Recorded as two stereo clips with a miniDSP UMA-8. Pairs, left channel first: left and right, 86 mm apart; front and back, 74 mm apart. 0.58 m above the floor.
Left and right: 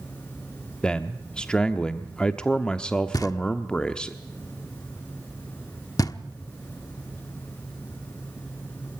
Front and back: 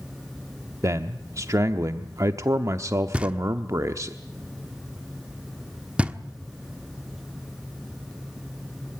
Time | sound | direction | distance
0.8 | a man speaking | 165° left | 0.9 m
3.1 | knocking | 110° left | 1.1 m